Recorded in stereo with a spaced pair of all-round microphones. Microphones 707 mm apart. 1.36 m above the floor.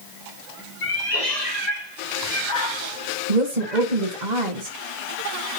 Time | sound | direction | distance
0.8 | a cat meowing | 70° left (ahead or behind) | 3.5 m
3.3 | a woman speaking | 75° right (ahead or behind) | 1.8 m